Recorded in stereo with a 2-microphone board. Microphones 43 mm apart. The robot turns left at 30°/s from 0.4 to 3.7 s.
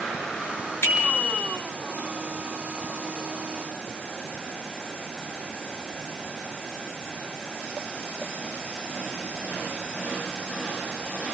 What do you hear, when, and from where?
0.8 s a bicycle bell: 60° left (ahead or behind), 5.5 m; by 1.5 s 80° left, 5.5 m